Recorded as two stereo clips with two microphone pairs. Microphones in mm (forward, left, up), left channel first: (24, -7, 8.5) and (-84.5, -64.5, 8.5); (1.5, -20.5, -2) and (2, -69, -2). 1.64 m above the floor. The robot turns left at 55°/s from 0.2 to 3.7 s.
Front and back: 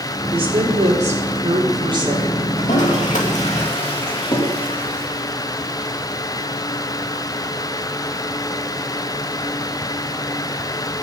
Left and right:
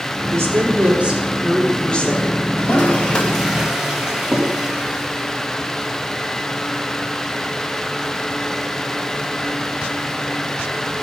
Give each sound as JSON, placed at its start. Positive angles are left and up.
{"t": 0.3, "sound": "a woman speaking", "azimuth_deg": -110, "distance_m": 4.0}
{"t": 2.6, "sound": "a toilet flushing", "azimuth_deg": 50, "distance_m": 2.5}